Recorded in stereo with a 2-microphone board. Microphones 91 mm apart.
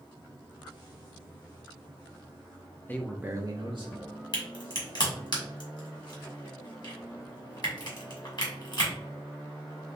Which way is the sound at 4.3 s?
50° left (ahead or behind).